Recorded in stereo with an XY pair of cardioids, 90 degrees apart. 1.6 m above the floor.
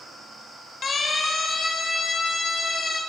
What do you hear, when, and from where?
0.8 s a siren: 55° left, 4 m